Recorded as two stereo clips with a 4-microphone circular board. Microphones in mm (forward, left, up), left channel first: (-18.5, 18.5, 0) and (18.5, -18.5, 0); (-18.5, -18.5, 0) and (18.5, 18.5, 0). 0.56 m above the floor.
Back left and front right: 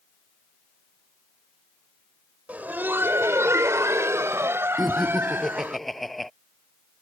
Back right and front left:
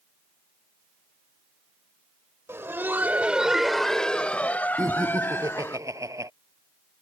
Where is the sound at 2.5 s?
15° left; by 5.8 s 95° right.